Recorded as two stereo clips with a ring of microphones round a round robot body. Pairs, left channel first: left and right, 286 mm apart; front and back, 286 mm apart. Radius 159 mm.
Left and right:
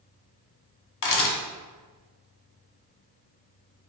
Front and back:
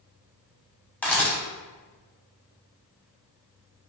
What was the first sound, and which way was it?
A camera shutter, 85° left.